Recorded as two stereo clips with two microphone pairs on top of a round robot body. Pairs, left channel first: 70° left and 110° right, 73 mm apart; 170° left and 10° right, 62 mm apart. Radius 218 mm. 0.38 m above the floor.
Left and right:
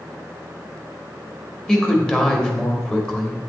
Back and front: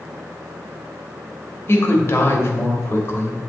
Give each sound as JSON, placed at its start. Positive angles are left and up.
{"t": 1.7, "sound": "a woman speaking", "azimuth_deg": 140, "distance_m": 1.7}